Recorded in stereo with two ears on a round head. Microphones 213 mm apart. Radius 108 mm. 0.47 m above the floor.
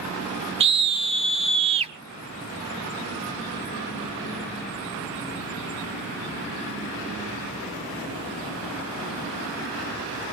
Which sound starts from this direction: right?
A scream, at 0.6 s.